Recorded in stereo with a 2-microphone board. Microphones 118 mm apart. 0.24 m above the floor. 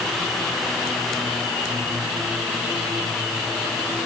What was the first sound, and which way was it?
Only background noise.